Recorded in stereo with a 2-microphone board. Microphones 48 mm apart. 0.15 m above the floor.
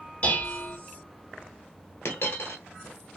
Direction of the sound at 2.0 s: 70° left (ahead or behind).